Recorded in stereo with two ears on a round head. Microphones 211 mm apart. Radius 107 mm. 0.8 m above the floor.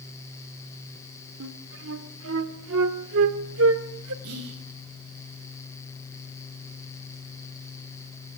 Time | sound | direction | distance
1.4 | a flute | 70° right (ahead or behind) | 1.6 m
4.2 | whispering | 80° right | 5.5 m